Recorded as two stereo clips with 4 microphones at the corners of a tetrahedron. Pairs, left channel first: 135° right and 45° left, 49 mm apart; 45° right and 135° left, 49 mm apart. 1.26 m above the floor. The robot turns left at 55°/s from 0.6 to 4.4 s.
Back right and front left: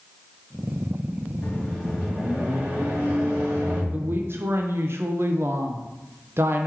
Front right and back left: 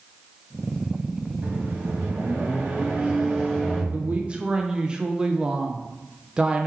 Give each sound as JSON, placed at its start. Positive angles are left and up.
{"t": 1.4, "sound": "a microwave", "azimuth_deg": 160, "distance_m": 2.0}
{"t": 3.9, "sound": "a woman speaking", "azimuth_deg": 90, "distance_m": 0.6}